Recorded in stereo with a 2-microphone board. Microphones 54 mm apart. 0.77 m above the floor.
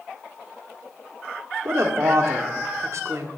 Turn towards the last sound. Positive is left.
turn(degrees=-60)  # may be behind; listen again after turning